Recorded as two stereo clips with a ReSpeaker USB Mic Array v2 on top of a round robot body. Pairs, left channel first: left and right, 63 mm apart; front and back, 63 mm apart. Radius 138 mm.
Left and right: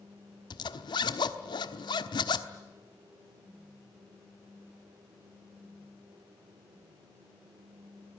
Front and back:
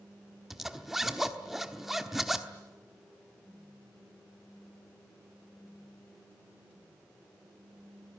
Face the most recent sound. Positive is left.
turn(degrees=90)